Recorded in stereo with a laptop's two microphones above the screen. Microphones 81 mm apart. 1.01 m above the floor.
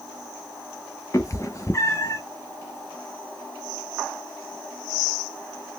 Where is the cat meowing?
40° left (ahead or behind), 0.7 m.